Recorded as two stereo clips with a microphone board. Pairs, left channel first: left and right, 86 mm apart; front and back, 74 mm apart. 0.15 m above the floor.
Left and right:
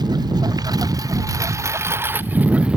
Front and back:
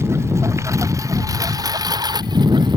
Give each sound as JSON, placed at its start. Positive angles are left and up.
{"t": 0.0, "sound": "a lawn mower", "azimuth_deg": -125}